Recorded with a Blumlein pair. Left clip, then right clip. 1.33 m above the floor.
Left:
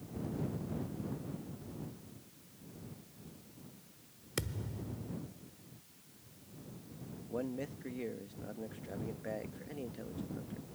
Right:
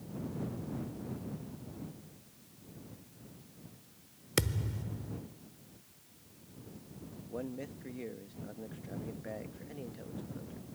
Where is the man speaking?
5° left.